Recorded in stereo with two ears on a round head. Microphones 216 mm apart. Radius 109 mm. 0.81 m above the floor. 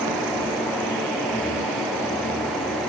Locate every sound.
Only background noise.